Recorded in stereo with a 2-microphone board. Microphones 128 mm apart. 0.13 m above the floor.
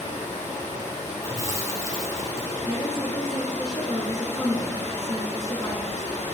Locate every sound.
0.0 s running water: 70° left (ahead or behind), 1.3 m
1.2 s chewing: 25° right (ahead or behind), 0.7 m
2.6 s a woman speaking: 30° left (ahead or behind), 1.3 m